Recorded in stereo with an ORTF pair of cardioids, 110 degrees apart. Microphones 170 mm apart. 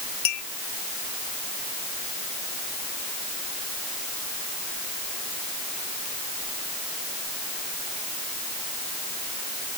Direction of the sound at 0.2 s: 65° left.